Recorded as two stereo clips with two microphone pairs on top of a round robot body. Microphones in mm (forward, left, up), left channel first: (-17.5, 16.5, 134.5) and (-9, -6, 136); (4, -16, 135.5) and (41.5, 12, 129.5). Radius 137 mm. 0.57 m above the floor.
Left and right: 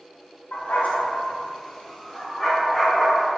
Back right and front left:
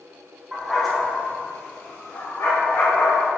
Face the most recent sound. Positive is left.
turn(degrees=-155)